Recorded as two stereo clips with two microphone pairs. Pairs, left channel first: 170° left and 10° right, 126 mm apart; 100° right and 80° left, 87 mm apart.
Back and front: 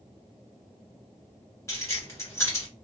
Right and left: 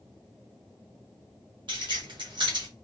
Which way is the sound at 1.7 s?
105° left.